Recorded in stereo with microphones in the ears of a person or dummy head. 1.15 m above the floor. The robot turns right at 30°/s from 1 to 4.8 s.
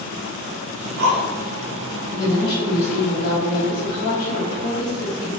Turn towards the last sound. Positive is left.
turn(degrees=100)